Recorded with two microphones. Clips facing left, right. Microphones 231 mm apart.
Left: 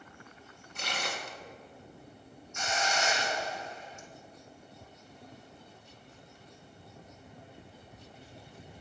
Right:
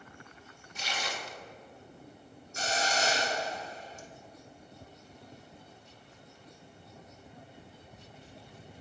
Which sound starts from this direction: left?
Tearing paper, at 0.8 s.